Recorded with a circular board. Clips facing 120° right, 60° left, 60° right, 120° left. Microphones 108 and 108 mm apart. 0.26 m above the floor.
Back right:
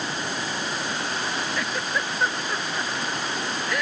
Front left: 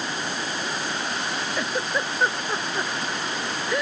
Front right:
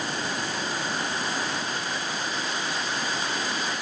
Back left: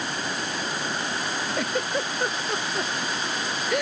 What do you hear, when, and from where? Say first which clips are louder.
1.6 s a giggle: front left 2 dB, back left 5 dB; 125° left